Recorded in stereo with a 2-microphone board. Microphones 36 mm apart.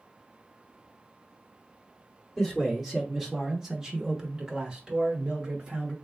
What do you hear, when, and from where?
2.4 s a man speaking: 5° left (ahead or behind), 1.1 m; by 5.9 s 15° right (ahead or behind), 2 m